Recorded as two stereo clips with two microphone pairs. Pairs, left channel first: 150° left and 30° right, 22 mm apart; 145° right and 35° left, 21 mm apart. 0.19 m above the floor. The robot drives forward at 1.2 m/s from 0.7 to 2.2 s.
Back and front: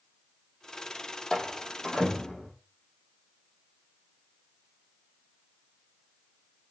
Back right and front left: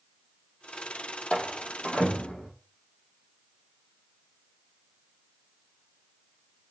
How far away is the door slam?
About 5 m.